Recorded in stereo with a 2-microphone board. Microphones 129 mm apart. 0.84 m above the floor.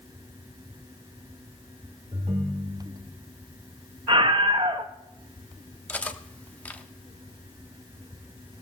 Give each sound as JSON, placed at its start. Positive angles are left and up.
{"t": 2.1, "sound": "a ringtone", "side_deg": -55, "distance_m": 1.3}
{"t": 4.1, "sound": "a scream", "side_deg": -40, "distance_m": 0.9}
{"t": 5.9, "sound": "cutlery clinking", "side_deg": 10, "distance_m": 0.8}